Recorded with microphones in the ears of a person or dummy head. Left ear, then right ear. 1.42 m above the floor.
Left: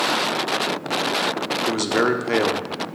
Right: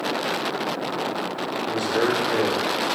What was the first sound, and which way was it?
A man speaking, 50° left (ahead or behind).